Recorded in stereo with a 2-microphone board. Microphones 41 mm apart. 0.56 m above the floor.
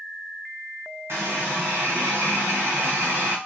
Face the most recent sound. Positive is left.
turn(degrees=-75)  # may be behind; listen again after turning